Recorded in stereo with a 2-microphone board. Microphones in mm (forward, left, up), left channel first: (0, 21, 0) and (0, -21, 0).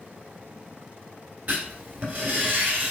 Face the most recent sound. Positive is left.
turn(degrees=-40)  # may be behind; listen again after turning